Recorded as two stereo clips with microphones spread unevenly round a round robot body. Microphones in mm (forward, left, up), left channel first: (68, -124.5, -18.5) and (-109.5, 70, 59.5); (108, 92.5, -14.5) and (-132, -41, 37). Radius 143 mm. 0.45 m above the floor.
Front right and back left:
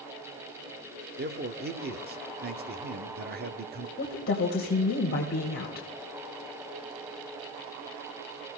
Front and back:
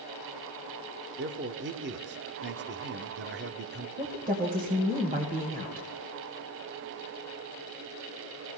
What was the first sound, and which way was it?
A man speaking, 175° right.